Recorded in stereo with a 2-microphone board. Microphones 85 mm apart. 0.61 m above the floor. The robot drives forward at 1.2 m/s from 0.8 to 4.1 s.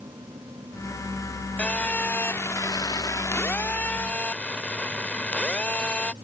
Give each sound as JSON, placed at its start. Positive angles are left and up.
{"t": 1.6, "sound": "a phone buzzing", "side_deg": 15}